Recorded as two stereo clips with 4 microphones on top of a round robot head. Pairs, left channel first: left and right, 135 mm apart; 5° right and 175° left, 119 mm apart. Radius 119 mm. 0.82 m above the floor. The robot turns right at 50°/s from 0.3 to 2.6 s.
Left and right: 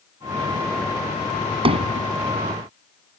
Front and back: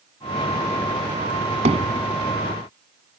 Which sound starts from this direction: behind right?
Hammering, at 1.6 s.